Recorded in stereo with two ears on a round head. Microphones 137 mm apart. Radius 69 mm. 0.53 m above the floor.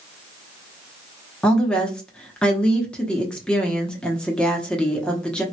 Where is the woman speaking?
5° left (ahead or behind), 0.6 m.